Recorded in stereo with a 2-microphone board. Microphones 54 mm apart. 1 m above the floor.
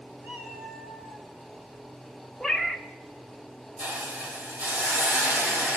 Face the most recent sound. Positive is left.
turn(degrees=-30)  # may be behind; listen again after turning